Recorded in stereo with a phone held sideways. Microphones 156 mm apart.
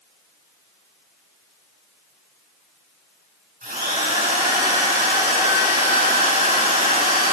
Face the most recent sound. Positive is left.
turn(degrees=-70)  # may be behind; listen again after turning